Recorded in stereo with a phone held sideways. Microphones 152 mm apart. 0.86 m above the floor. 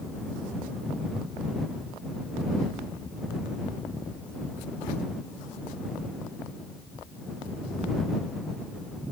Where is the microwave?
I don't hear a microwave.